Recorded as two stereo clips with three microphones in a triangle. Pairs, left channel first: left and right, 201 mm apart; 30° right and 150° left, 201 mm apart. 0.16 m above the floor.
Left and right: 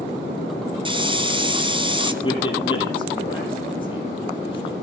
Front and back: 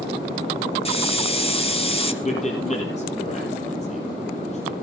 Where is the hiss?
50° right, 1.7 m.